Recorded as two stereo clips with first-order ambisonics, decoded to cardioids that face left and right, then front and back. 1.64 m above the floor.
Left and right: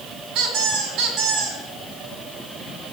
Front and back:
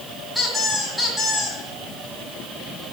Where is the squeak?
95° right, 3 m.